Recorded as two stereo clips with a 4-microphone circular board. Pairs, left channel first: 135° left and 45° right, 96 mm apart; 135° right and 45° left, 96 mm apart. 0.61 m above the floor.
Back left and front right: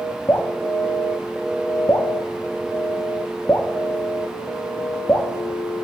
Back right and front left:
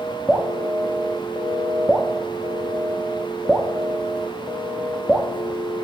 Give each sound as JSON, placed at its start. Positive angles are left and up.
{"t": 0.3, "sound": "dripping", "azimuth_deg": 120, "distance_m": 0.8}